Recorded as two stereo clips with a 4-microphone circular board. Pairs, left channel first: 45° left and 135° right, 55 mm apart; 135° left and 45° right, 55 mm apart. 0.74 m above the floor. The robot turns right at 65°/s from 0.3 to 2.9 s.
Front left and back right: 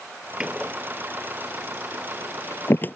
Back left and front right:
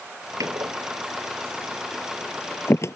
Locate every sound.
0.4 s a door slam: 60° right; by 3.0 s 100° left